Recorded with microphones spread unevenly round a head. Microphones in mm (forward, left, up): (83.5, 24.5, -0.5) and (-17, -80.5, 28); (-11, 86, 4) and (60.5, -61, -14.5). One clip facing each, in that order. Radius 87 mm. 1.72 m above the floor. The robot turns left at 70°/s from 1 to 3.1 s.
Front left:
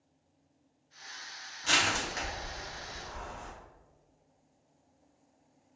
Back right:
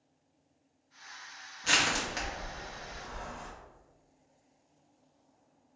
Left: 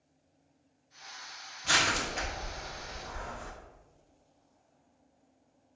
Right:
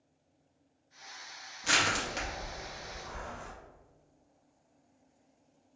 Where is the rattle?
I don't hear a rattle.